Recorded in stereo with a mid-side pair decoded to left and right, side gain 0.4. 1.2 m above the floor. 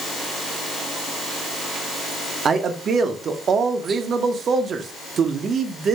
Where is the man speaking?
55° right, 0.7 m.